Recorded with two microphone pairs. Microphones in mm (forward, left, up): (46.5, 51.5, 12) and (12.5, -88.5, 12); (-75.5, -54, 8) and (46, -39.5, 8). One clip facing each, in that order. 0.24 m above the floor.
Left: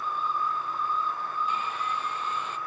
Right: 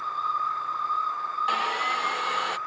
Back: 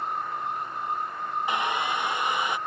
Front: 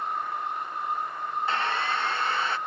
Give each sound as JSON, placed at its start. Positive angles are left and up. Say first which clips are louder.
{"t": 1.5, "sound": "sawing", "louder": "right 3 dB, back 1 dB", "azimuth_deg": -95}